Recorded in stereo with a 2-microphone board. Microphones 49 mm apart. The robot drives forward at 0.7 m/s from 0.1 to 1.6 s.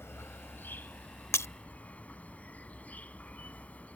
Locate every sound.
0.0 s an insect: 60° left (ahead or behind); by 4.0 s 30° left (ahead or behind)
1.3 s breaking glass: 70° left (ahead or behind); by 1.5 s 75° left (ahead or behind)